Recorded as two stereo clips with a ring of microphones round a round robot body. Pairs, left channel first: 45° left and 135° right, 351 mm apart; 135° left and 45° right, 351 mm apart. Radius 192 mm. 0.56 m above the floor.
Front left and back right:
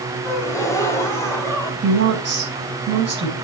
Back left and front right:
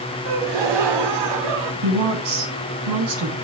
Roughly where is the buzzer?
No buzzer in this recording.